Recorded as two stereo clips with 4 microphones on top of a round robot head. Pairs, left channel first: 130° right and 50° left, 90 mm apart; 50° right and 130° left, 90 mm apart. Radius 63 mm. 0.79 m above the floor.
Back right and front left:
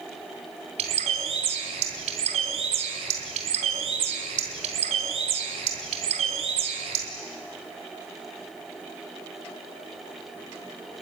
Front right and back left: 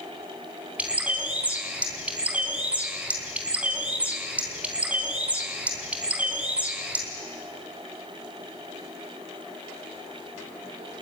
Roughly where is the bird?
Ahead left.